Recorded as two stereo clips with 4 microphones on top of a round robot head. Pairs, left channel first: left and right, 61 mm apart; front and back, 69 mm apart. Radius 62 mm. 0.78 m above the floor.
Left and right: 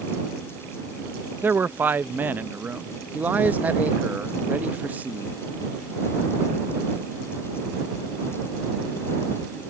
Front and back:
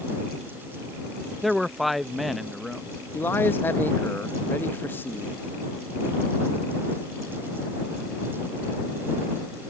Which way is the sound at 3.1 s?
45° right.